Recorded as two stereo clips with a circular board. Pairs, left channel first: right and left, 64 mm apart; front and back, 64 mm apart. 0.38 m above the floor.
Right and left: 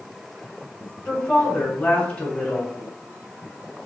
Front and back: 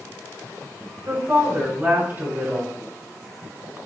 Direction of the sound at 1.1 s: 145° right.